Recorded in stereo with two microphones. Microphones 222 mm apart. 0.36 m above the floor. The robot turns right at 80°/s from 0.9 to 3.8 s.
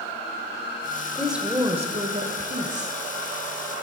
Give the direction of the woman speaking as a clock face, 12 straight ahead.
6 o'clock.